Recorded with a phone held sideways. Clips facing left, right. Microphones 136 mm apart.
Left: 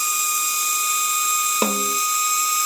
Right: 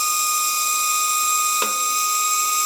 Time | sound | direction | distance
0.0 | a machine running | 30° right (ahead or behind) | 1.7 m
1.6 | a snare drum | 40° left (ahead or behind) | 0.6 m